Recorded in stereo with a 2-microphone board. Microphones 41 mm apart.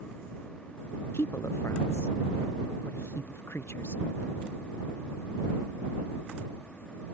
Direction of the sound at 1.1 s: 80° left.